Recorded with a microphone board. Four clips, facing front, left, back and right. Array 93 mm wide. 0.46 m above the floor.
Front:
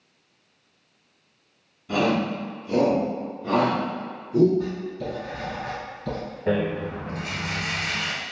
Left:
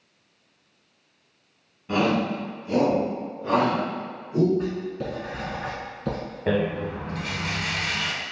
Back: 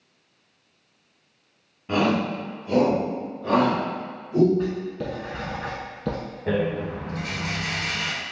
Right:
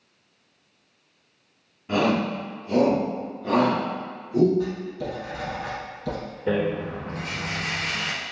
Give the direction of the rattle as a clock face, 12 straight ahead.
9 o'clock.